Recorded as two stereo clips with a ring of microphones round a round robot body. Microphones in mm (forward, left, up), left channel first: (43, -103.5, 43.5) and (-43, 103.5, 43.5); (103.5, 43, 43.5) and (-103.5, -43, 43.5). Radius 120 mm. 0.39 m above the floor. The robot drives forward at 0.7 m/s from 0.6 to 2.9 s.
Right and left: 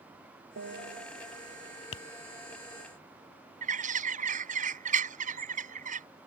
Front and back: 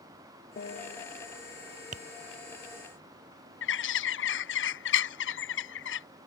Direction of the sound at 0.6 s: 75° left.